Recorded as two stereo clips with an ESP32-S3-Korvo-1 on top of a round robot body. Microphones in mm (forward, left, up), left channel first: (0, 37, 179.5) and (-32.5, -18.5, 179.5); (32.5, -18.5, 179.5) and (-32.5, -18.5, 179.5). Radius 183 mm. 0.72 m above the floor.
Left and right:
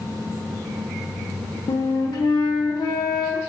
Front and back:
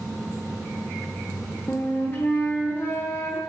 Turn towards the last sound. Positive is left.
turn(degrees=60)